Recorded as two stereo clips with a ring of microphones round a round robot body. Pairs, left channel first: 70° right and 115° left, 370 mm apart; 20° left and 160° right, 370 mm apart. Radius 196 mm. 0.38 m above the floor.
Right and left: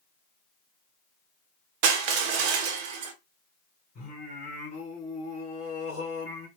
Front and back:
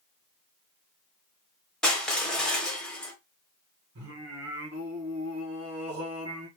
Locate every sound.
1.8 s crushing: 110° left, 0.7 m
4.0 s singing: 125° right, 1.8 m